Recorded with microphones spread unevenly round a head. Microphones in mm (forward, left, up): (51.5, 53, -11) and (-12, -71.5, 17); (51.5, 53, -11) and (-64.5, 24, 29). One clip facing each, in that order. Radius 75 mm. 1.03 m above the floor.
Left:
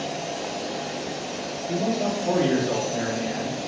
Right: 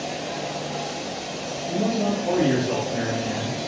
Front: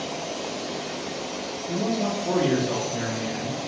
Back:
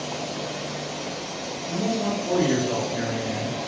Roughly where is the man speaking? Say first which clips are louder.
Right 1 dB, even; ahead.